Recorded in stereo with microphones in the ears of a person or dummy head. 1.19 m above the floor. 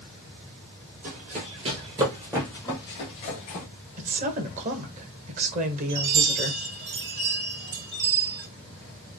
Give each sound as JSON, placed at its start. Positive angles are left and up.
{"t": 1.0, "sound": "running footsteps", "side_deg": -45, "distance_m": 1.9}
{"t": 4.0, "sound": "a woman speaking", "side_deg": -45, "distance_m": 1.0}
{"t": 5.9, "sound": "a chime", "side_deg": -70, "distance_m": 1.9}